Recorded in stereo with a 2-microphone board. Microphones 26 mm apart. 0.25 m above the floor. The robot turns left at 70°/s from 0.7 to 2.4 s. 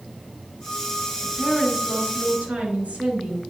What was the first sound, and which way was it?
A woman speaking, 20° left.